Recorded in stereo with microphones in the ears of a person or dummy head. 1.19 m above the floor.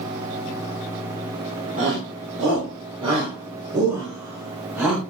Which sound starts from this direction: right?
A shout, at 1.8 s.